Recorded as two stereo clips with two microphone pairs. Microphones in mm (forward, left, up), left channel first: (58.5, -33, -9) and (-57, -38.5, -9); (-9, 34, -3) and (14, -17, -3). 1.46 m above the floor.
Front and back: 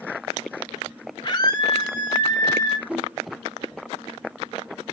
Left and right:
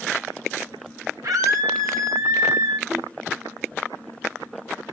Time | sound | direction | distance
1.2 | a scream | 50° right | 1.2 m
2.9 | a whoosh | 95° right | 3.5 m